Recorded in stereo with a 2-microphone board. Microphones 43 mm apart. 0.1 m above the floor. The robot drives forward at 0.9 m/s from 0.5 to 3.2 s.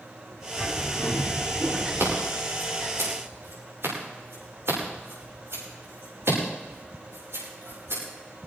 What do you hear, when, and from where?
0.6 s a bird: 20° right (ahead or behind), 2.5 m; by 2.2 s 15° right (ahead or behind), 4 m
2.0 s scissors: 70° right (ahead or behind), 9.5 m; by 8.0 s 65° right (ahead or behind), 10 m